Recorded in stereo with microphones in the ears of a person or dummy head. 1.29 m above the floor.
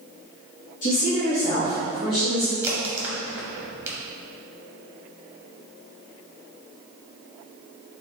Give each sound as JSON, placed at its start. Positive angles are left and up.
{"t": 0.8, "sound": "a woman speaking", "side_deg": 40, "distance_m": 0.9}
{"t": 2.6, "sound": "a crack", "side_deg": -15, "distance_m": 0.8}